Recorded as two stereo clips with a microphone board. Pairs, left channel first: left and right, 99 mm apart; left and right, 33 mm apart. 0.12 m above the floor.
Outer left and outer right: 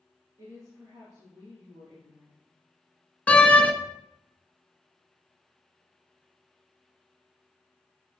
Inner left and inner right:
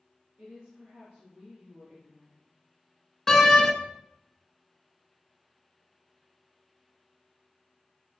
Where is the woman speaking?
40° right (ahead or behind), 3.5 m.